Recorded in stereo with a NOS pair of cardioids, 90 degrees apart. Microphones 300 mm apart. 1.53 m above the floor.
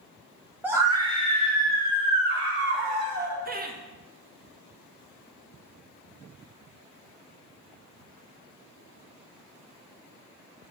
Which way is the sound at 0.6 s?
5° right.